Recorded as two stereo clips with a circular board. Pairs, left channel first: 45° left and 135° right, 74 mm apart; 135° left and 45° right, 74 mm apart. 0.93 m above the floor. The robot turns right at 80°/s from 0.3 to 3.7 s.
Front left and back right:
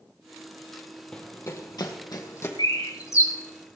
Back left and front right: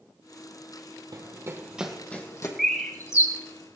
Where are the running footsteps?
35° right, 2.0 m; by 2.5 s 100° left, 2.5 m.